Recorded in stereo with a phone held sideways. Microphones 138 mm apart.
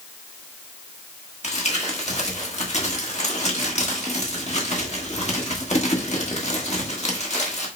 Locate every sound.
1.4 s crumpling: 50° left (ahead or behind), 1.4 m